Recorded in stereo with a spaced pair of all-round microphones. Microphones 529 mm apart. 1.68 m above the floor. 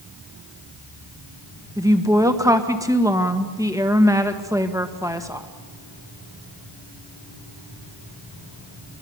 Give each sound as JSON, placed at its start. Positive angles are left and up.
{"t": 1.8, "sound": "a woman speaking", "side_deg": -5, "distance_m": 1.6}